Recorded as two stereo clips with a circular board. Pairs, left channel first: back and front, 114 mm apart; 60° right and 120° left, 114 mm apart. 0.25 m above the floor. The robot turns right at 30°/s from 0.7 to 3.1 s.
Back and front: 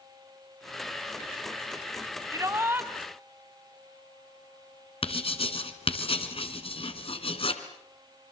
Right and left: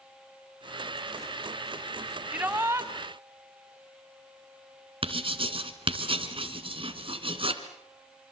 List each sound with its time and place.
2.3 s a shout: 50° left, 2 m; by 2.9 s 65° left, 2 m
5.0 s writing: 150° left, 2.5 m